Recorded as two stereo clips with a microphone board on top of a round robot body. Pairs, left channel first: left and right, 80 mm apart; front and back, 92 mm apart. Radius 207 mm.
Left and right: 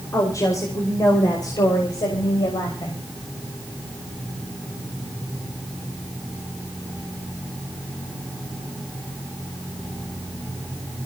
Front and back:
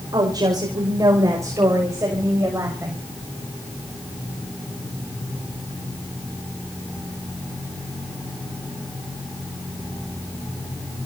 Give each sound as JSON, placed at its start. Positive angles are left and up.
{"t": 0.1, "sound": "a woman speaking", "azimuth_deg": 140, "distance_m": 5.0}